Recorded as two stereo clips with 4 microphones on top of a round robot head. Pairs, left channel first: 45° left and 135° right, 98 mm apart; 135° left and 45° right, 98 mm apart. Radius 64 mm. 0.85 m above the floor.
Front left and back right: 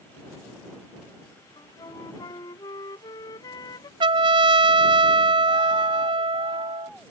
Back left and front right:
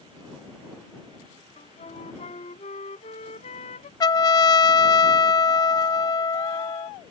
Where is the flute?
100° left.